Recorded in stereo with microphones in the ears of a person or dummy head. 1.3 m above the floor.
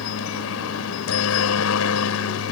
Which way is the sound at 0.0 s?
70° left (ahead or behind).